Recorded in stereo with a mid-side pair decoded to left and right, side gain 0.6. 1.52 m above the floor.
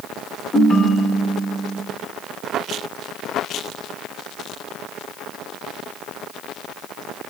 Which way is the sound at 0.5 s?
30° left.